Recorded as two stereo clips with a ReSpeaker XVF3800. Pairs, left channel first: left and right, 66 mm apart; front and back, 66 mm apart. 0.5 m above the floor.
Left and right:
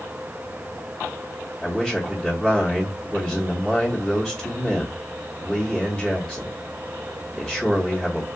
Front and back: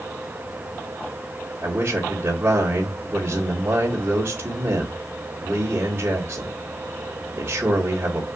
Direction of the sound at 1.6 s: 170° left.